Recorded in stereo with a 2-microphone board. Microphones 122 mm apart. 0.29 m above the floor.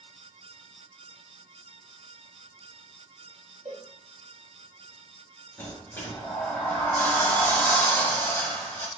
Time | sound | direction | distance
3.6 | a cowbell | 65° right (ahead or behind) | 1.8 m
5.6 | a sliding door | 15° left (ahead or behind) | 0.9 m